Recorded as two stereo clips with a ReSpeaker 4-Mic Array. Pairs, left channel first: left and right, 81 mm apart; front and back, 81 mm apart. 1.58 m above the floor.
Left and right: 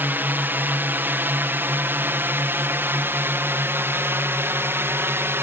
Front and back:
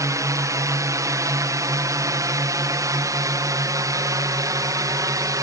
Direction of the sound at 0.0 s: 145° right.